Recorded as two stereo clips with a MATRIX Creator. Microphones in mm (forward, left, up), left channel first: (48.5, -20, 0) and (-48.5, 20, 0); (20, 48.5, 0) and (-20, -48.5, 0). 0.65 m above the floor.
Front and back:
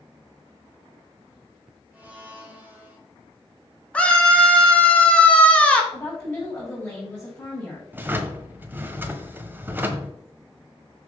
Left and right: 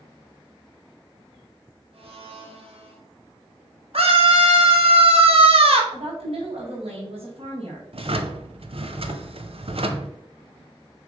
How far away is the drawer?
About 0.9 m.